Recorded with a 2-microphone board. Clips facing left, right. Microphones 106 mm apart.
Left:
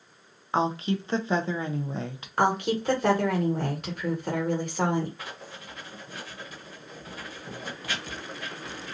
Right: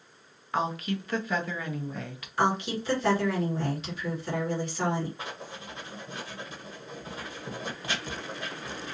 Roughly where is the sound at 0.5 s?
Left.